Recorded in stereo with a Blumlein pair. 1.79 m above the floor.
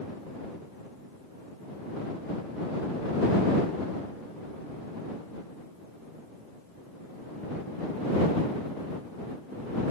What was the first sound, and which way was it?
Only background noise.